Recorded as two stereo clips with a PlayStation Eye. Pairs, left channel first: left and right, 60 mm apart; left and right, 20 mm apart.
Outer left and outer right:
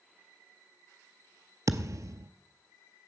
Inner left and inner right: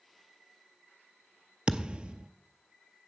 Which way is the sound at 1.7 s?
65° right (ahead or behind).